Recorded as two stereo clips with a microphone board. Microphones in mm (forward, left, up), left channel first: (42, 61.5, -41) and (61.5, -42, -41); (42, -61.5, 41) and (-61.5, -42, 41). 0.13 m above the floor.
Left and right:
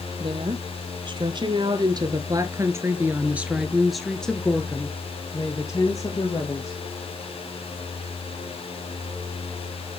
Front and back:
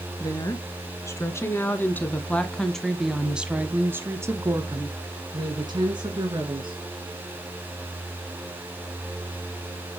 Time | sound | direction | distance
0.2 | a woman speaking | 60° right | 2 m